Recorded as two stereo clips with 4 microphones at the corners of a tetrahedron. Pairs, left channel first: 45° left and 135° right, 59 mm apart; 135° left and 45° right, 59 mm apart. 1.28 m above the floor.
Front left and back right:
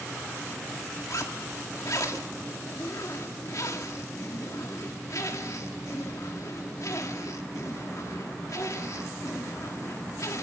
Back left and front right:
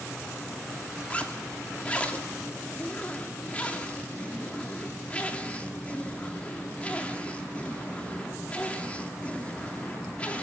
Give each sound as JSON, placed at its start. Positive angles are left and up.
{"t": 1.1, "sound": "a zipper", "azimuth_deg": 70, "distance_m": 2.0}